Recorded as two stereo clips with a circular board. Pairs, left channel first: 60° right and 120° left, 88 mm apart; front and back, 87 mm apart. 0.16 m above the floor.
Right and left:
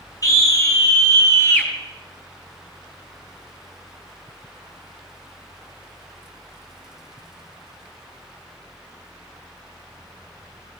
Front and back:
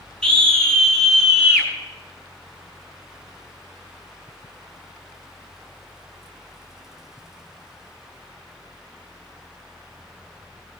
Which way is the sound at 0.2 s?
75° right.